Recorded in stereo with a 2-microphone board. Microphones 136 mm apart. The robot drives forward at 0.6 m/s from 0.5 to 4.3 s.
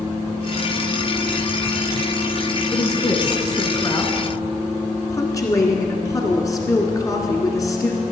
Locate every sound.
2.7 s a woman speaking: 30° left (ahead or behind), 1.1 m; by 8.0 s 25° left (ahead or behind), 1.4 m